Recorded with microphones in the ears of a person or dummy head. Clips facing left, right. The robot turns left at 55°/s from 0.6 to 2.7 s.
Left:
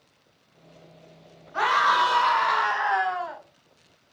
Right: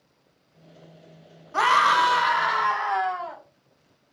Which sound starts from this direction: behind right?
A scream, at 1.5 s.